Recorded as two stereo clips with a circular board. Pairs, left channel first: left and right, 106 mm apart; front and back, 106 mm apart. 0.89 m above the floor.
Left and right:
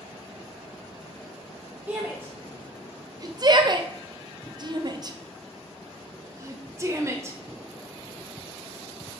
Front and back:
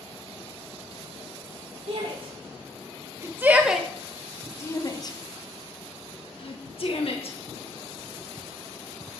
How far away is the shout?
About 1.3 m.